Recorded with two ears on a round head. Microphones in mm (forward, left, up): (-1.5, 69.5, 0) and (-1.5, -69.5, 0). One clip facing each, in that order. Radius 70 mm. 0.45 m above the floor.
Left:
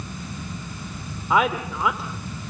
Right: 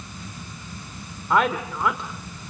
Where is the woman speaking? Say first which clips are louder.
Even; 5° left (ahead or behind), 1.6 m.